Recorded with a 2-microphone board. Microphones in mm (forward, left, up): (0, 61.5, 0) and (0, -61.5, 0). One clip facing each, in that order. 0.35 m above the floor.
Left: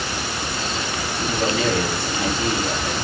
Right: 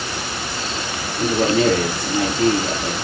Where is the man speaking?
45° right (ahead or behind), 5 m.